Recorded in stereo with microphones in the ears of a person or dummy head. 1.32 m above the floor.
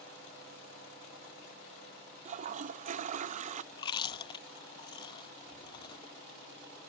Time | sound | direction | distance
2.2 | a toilet flushing | 40° right (ahead or behind) | ?
3.7 | chewing | 30° left (ahead or behind) | ?